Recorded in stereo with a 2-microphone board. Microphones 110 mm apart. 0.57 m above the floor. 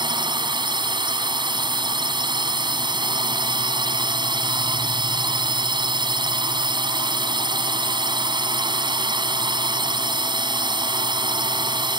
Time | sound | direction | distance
0.0 | a drone | 45° right (ahead or behind) | ?